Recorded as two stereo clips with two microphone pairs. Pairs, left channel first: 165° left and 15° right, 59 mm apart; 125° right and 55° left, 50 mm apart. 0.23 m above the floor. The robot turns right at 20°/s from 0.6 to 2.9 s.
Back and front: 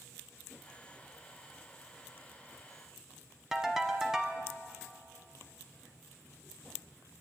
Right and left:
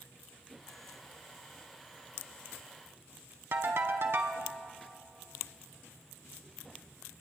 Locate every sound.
3.5 s a ringtone: 65° left, 0.8 m